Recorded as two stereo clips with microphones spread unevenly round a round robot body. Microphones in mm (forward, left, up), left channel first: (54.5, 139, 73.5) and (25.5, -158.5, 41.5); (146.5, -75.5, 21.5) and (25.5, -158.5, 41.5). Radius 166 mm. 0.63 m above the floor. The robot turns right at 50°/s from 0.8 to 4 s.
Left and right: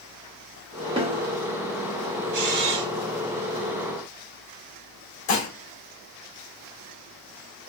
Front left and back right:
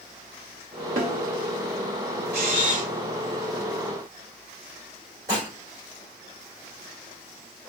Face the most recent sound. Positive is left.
turn(degrees=135)